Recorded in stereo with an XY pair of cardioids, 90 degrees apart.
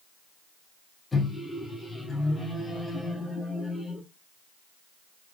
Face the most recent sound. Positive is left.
turn(degrees=25)